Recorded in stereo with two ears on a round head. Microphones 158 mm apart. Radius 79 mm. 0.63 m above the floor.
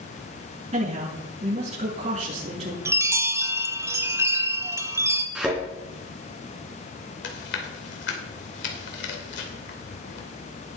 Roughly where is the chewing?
Left.